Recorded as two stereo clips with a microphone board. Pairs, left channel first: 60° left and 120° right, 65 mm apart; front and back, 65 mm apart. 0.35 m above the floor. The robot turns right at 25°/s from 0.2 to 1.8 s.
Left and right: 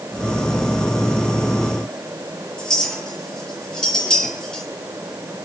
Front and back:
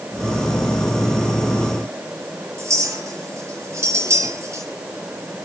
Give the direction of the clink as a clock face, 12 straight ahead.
7 o'clock.